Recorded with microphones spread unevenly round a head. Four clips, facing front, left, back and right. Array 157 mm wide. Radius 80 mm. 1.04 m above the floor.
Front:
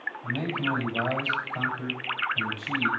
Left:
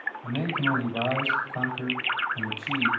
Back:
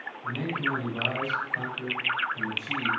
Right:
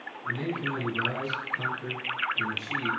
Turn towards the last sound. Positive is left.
turn(degrees=75)